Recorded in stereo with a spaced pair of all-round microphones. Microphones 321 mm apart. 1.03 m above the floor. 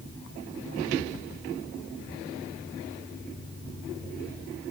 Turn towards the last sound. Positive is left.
No sound to turn to.